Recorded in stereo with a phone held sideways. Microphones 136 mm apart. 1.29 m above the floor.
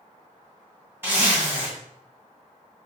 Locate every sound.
1.0 s a zipper: 15° right (ahead or behind), 1.7 m